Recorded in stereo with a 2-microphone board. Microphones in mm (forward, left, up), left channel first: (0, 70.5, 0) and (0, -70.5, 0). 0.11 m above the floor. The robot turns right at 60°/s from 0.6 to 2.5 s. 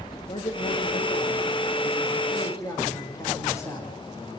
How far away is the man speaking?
About 7.5 m.